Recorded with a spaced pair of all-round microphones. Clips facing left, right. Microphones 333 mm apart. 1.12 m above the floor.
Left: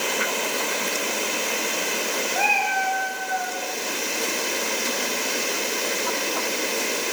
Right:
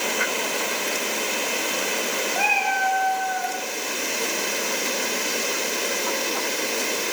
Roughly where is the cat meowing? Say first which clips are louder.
Even; centre.